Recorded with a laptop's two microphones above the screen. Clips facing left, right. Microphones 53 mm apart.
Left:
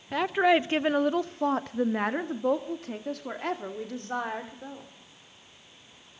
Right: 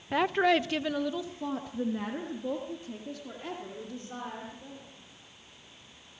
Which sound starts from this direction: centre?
A woman speaking, at 0.1 s.